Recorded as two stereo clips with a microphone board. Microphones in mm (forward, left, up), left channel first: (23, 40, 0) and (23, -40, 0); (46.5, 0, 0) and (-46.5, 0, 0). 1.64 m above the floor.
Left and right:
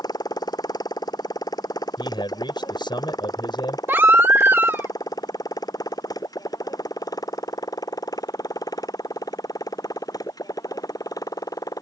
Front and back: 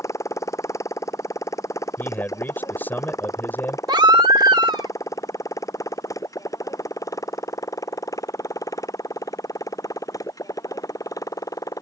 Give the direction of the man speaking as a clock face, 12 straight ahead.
10 o'clock.